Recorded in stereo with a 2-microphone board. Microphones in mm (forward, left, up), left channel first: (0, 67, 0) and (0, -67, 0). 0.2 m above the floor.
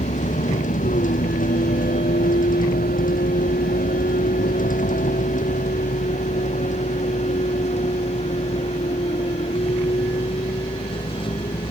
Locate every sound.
0.0 s a vehicle: 65° left (ahead or behind); by 11.7 s 40° left (ahead or behind)